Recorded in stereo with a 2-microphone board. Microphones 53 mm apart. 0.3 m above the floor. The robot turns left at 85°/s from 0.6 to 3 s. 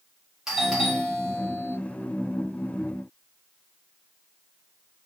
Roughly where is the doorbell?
Centre.